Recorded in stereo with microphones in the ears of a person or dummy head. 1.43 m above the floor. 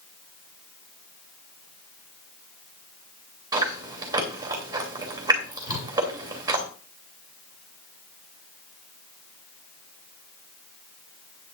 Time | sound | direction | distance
3.5 | chewing | 20° right (ahead or behind) | 2.5 m
5.7 | a whoosh | 70° left (ahead or behind) | 2.5 m